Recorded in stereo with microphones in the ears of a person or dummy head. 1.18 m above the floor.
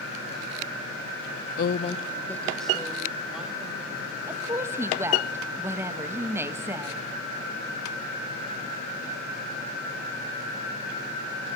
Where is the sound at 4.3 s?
15° right (ahead or behind), 0.8 m.